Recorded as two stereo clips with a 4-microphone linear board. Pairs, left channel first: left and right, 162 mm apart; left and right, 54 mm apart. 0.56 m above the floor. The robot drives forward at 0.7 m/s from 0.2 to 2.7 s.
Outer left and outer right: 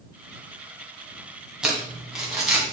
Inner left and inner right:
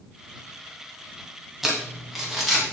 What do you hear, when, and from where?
1.6 s crumpling: 5° right (ahead or behind), 2.5 m